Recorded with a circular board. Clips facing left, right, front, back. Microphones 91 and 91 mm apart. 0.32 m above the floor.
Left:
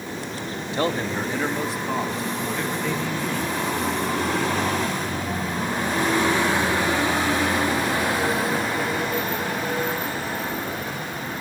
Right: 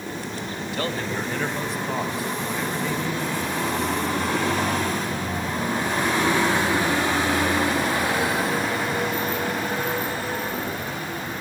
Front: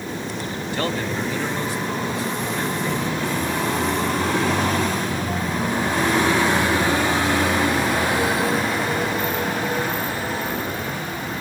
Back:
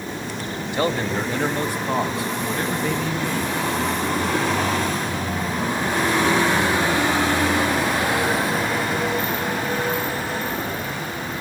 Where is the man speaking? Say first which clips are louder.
Left 4 dB, back 3 dB; 125° left, 1.3 m; by 3.6 s 165° right, 3.5 m.